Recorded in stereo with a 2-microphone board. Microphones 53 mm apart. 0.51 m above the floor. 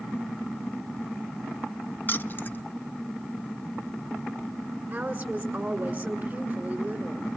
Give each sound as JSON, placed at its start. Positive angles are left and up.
{"t": 2.1, "sound": "keys jangling", "side_deg": 40, "distance_m": 0.6}
{"t": 4.9, "sound": "a woman speaking", "side_deg": -25, "distance_m": 2.0}